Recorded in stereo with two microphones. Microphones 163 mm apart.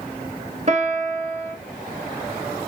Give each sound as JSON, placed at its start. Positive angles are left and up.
{"t": 0.7, "sound": "a piano", "side_deg": -40, "distance_m": 0.9}